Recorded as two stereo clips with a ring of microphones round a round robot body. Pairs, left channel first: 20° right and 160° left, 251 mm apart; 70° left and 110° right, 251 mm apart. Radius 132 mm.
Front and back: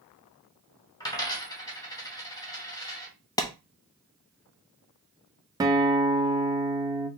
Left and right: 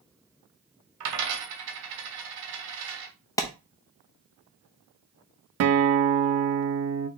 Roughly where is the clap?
Ahead.